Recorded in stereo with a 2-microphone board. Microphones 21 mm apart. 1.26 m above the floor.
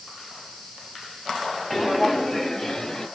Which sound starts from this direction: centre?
Footsteps, at 1.7 s.